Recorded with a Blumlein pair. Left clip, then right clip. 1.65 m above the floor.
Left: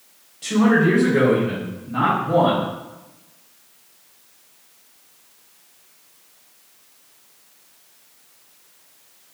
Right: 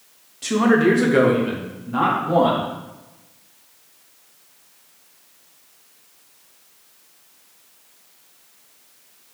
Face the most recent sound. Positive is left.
turn(degrees=-75)